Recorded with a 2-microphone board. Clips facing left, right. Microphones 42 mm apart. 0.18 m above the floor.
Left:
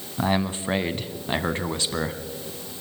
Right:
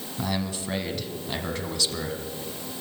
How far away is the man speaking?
About 1.1 m.